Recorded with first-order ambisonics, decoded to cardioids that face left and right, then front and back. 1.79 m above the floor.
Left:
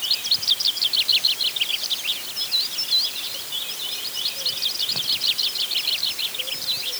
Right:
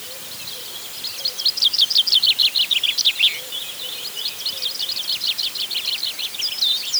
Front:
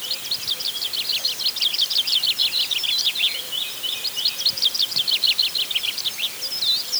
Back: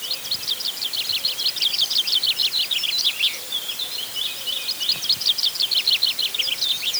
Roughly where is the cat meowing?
No cat meowing in this recording.